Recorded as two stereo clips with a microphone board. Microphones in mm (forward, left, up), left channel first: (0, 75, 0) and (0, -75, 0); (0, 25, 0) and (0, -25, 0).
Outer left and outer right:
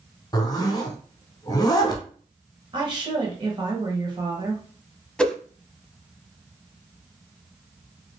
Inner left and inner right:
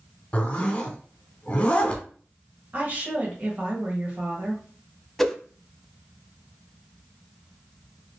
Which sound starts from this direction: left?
A zipper, at 0.3 s.